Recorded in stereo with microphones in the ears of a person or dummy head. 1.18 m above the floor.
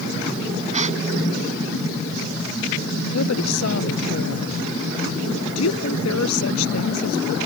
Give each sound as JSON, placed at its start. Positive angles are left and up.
{"t": 0.7, "sound": "a gasp", "side_deg": -35}
{"t": 3.1, "sound": "a woman speaking", "side_deg": 85}